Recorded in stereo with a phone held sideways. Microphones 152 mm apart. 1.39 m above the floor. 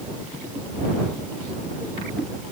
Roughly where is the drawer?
I don't hear a drawer.